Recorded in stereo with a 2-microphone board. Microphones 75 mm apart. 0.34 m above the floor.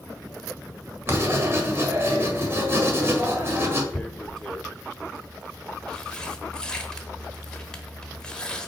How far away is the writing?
About 1.5 m.